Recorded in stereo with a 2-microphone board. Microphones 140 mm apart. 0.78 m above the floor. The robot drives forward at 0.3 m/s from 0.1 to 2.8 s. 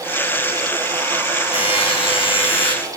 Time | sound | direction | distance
1.5 | a buzzer | 40° left (ahead or behind) | 7 m